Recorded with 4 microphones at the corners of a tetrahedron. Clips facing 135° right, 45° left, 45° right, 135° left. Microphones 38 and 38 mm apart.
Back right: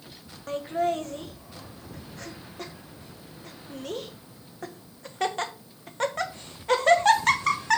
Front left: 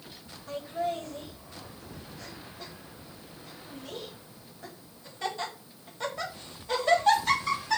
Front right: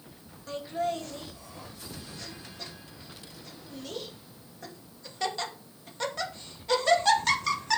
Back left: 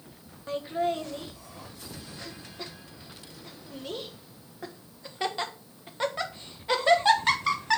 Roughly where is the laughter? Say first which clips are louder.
Back right 5 dB, back left 3 dB; behind.